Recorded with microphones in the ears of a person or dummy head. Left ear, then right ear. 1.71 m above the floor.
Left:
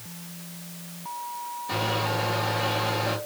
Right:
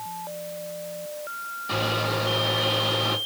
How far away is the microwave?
About 2 m.